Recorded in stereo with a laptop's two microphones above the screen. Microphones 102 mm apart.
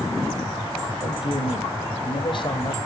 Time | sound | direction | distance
1.0 | a man speaking | 55° left (ahead or behind) | 5 m